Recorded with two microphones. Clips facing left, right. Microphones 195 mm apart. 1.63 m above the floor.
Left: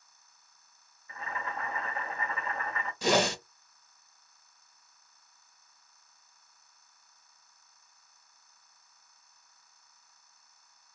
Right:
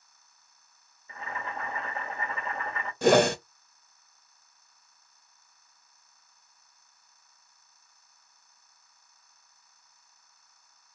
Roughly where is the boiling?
Right.